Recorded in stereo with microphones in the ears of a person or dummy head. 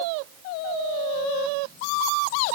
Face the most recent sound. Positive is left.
No sound to turn to.